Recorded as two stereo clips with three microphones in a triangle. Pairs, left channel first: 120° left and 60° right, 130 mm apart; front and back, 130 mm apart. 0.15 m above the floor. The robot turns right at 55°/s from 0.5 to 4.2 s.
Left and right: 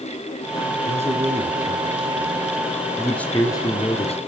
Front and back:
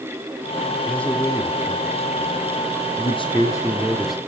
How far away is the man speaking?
About 2.5 m.